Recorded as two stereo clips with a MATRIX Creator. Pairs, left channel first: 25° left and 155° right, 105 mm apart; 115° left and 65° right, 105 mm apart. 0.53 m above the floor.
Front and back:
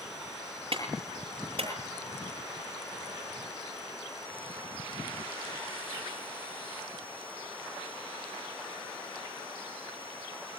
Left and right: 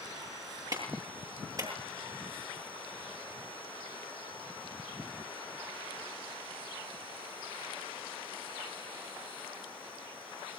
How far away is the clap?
About 9.5 m.